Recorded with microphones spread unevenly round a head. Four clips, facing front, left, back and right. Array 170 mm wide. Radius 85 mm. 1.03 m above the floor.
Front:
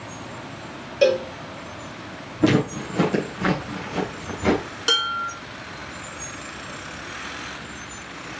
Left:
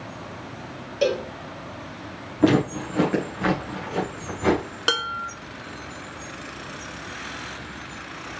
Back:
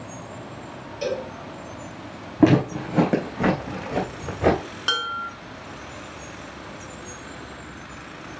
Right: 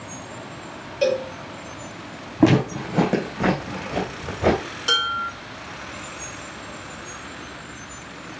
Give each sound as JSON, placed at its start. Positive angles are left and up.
{"t": 1.0, "sound": "a cowbell", "azimuth_deg": 15, "distance_m": 1.4}
{"t": 2.4, "sound": "footsteps", "azimuth_deg": -140, "distance_m": 3.5}
{"t": 4.9, "sound": "dishes clattering", "azimuth_deg": 85, "distance_m": 1.5}